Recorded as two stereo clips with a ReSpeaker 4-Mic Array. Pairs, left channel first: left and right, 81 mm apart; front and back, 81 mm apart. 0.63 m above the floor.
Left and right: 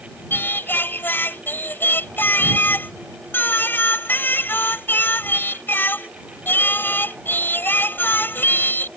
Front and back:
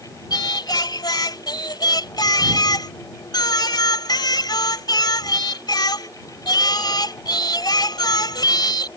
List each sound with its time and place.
0.3 s singing: 25° left